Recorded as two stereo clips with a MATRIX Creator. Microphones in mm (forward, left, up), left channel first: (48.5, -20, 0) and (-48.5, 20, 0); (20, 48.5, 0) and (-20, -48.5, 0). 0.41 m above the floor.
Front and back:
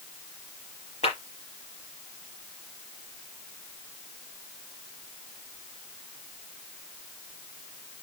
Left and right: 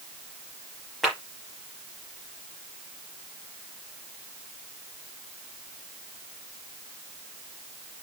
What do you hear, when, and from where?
1.0 s a clap: 20° right, 6 m